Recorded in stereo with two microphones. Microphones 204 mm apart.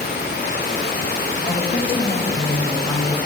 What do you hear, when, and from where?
1.5 s a woman speaking: 30° left (ahead or behind), 3.5 m; by 3.1 s 20° left (ahead or behind), 4.5 m